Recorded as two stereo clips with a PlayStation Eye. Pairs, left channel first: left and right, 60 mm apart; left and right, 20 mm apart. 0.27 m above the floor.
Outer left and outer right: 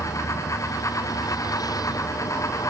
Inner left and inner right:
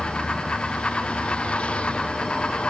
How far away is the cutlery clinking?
I don't hear cutlery clinking.